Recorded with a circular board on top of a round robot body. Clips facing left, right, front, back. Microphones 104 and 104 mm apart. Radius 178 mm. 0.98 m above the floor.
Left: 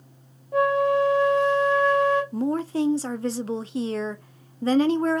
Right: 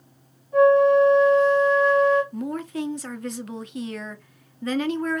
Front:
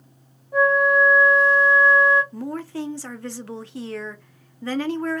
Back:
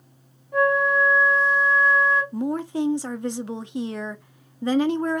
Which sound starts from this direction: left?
A flute, at 0.5 s.